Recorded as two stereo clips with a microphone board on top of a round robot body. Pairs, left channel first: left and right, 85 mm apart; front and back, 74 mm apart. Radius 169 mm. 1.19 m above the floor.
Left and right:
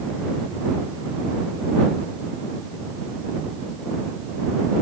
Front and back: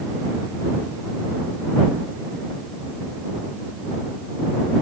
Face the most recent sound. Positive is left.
No sound to turn to.